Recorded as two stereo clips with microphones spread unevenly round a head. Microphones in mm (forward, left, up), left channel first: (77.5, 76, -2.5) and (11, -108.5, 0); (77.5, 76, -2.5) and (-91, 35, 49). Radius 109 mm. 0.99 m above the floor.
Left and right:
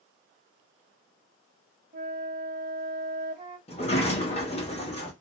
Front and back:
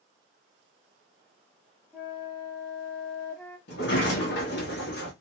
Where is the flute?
100° right, 1.0 m.